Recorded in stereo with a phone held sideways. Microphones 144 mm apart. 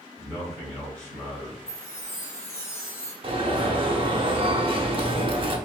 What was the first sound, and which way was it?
A man speaking, 15° left (ahead or behind).